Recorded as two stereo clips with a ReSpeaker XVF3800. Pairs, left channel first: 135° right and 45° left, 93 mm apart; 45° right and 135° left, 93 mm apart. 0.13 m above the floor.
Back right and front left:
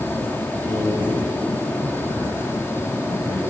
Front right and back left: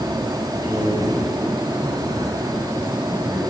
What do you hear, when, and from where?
0.6 s a man speaking: 95° left, 7 m